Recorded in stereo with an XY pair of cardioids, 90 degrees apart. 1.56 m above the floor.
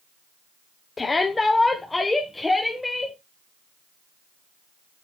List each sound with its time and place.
1.0 s a shout: 35° left, 1.1 m; by 3.2 s 15° left, 2.5 m